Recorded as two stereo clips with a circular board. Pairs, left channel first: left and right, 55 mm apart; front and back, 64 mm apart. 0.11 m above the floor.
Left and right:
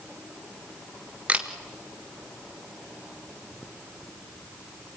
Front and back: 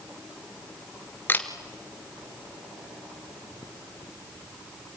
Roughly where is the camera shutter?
Ahead right.